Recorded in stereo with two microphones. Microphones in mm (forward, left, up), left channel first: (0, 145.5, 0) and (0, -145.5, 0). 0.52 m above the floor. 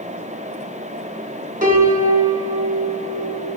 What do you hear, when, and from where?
1.6 s a piano: 25° right (ahead or behind), 0.9 m